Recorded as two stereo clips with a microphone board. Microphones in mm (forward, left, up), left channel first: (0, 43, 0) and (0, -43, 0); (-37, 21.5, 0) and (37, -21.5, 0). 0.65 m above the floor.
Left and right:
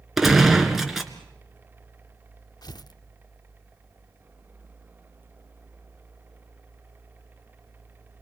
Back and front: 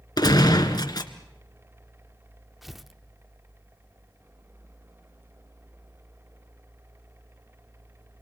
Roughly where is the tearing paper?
Ahead left.